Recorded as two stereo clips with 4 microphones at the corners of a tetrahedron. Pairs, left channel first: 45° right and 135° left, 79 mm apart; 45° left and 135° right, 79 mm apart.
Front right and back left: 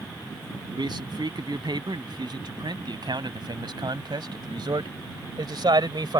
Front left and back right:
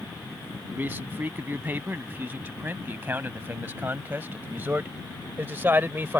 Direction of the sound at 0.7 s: 160° left.